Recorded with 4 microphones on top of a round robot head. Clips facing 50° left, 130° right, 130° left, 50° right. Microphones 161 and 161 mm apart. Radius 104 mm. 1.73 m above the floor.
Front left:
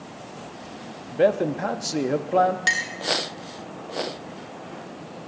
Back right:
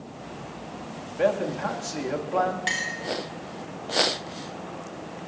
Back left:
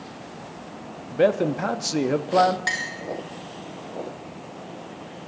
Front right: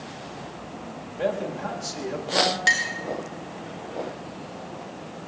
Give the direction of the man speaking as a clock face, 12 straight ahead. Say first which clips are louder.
Front left 4 dB, back left 7 dB; 9 o'clock.